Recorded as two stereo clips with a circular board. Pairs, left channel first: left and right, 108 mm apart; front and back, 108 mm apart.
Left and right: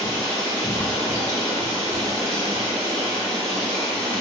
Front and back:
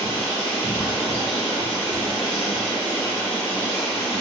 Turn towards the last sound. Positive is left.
turn(degrees=-80)